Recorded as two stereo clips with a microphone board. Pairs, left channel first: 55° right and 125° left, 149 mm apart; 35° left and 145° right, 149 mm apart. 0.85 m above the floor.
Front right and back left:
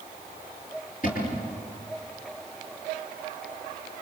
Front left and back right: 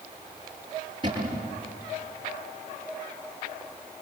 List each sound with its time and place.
1.0 s a cupboard door: 85° right, 6.5 m